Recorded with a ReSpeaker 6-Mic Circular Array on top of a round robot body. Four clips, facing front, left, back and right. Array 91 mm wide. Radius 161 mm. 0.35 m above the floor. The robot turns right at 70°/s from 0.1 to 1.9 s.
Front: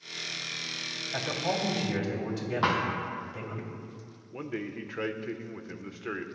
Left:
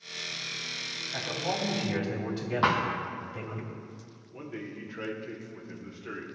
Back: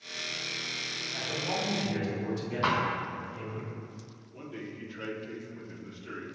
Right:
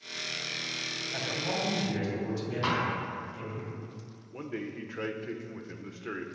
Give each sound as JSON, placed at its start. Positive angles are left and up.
{"t": 1.1, "sound": "a man speaking", "azimuth_deg": 0, "distance_m": 3.0}
{"t": 2.6, "sound": "a thud", "azimuth_deg": 55, "distance_m": 2.5}
{"t": 4.3, "sound": "a man speaking", "azimuth_deg": -15, "distance_m": 1.5}